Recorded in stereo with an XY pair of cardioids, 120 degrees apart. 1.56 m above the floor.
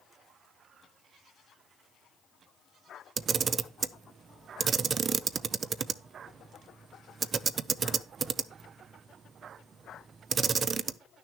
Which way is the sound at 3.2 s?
40° right.